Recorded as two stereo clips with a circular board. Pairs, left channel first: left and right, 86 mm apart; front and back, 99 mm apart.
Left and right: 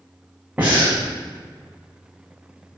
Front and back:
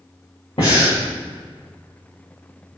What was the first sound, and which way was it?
Breathing, 20° right.